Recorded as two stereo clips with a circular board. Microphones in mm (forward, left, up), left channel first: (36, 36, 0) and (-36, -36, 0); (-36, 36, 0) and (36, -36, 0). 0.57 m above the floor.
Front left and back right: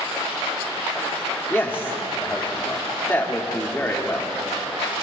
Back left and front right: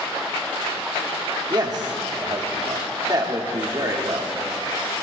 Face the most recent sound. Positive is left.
turn(degrees=-20)